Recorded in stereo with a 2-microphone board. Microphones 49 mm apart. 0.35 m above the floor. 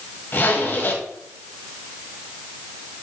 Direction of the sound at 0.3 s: 50° left (ahead or behind).